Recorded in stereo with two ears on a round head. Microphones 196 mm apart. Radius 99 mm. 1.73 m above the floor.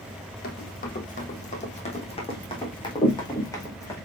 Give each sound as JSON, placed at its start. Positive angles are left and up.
{"t": 0.4, "sound": "running footsteps", "side_deg": 45, "distance_m": 3.0}